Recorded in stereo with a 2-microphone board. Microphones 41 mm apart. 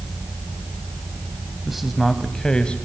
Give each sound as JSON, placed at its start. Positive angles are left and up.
{"t": 1.6, "sound": "a man speaking", "side_deg": -5, "distance_m": 1.2}